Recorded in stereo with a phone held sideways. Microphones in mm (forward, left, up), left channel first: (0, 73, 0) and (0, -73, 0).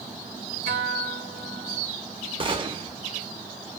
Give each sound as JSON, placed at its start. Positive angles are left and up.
{"t": 0.7, "sound": "a guitar", "side_deg": -50, "distance_m": 1.8}
{"t": 2.4, "sound": "a gunshot", "side_deg": -35, "distance_m": 0.5}